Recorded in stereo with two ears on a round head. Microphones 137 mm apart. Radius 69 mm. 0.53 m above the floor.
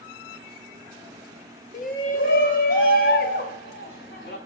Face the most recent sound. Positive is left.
turn(degrees=75)  # may be behind; listen again after turning